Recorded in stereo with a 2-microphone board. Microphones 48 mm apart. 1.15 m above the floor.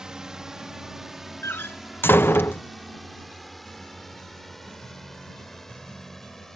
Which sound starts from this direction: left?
A door slam, at 1.4 s.